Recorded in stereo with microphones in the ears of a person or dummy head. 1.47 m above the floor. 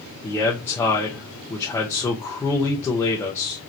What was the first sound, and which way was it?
A man speaking, 10° left (ahead or behind).